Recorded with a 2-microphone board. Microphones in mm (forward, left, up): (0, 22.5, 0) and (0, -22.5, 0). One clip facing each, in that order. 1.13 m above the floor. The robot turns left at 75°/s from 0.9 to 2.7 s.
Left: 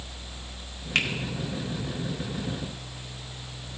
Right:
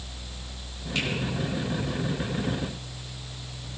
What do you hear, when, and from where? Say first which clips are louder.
0.9 s a finger snap: left 4 dB; 60° left (ahead or behind), 1.8 m; by 1.1 s 70° left (ahead or behind), 1.8 m